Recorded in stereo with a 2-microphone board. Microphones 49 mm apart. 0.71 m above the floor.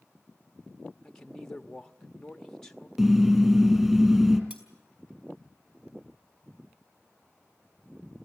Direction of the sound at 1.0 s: 10° left (ahead or behind).